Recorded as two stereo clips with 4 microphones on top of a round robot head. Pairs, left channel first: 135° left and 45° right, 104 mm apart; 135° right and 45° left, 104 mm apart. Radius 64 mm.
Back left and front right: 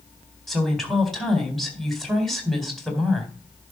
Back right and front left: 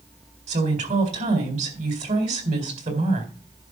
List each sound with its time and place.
0.5 s a woman speaking: 50° left, 4 m